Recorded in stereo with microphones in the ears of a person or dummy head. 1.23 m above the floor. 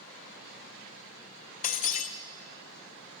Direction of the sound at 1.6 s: 40° left (ahead or behind).